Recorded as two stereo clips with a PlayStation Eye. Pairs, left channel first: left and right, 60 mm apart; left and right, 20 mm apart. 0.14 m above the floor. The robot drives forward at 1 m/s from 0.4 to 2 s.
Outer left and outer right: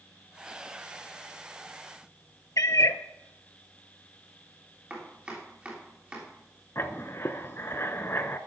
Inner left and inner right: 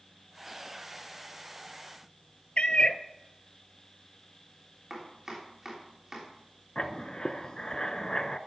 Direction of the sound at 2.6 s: 65° left (ahead or behind).